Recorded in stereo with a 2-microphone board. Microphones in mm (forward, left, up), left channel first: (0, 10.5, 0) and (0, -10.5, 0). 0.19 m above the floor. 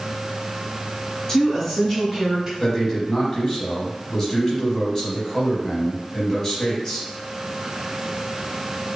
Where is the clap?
I don't hear a clap.